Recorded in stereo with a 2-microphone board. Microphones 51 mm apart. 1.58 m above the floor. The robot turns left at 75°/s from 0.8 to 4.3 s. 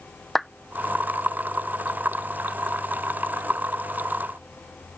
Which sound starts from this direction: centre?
A clap, at 0.3 s.